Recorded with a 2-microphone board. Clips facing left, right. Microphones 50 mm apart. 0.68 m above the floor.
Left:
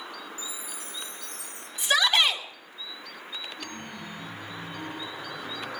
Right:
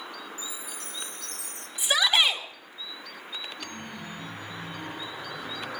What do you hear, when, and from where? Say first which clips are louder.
0.4 s a chime: even; 75° right (ahead or behind), 4 m
1.8 s a shout: left 1 dB; 10° right (ahead or behind), 4 m
3.6 s a chime: even; 5° right (ahead or behind), 3 m